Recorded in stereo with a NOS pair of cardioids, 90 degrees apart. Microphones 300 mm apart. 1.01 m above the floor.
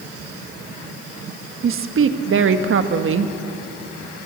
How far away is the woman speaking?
About 1.4 m.